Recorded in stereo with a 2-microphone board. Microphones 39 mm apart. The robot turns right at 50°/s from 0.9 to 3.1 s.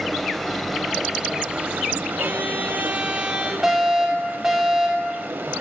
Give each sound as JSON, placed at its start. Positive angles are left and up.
{"t": 0.0, "sound": "running water", "azimuth_deg": 180, "distance_m": 0.8}
{"t": 2.2, "sound": "a violin", "azimuth_deg": -95, "distance_m": 1.3}
{"t": 3.6, "sound": "a fire alarm", "side_deg": -5, "distance_m": 3.0}